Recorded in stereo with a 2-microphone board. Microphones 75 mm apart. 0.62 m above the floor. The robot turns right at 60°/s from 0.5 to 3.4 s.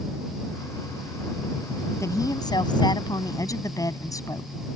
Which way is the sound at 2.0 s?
45° left.